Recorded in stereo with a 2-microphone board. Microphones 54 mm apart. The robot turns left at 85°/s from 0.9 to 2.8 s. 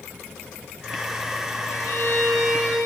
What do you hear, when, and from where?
1.7 s a violin: 120° left, 9 m; by 2.8 s 25° left, 9 m